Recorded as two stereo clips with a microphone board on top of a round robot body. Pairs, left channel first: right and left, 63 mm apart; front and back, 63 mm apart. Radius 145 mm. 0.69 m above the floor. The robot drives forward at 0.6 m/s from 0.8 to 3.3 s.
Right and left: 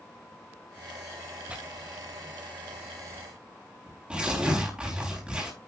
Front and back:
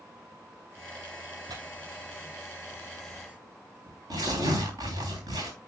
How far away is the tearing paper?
About 2.5 m.